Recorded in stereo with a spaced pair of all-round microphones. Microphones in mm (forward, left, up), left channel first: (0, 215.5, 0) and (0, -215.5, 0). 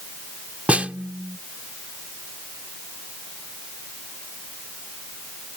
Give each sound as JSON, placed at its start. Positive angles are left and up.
{"t": 0.7, "sound": "a snare drum", "side_deg": -5}